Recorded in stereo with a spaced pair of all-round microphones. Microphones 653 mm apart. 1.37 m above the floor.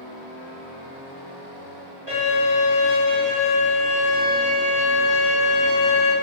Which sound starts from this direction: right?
A violin, at 2.1 s.